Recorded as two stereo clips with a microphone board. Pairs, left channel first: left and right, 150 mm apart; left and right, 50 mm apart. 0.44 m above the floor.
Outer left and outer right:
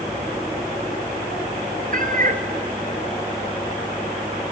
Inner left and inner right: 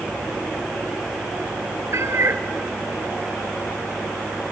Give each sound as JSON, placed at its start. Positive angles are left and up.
{"t": 1.9, "sound": "a cat meowing", "side_deg": -65, "distance_m": 1.2}